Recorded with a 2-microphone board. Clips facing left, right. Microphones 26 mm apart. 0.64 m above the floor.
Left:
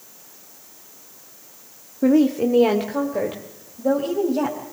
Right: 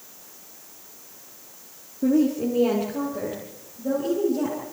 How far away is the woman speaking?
About 1.1 m.